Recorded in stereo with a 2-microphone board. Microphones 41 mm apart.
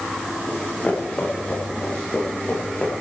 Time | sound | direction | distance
0.5 | running footsteps | 30° left (ahead or behind) | 8 m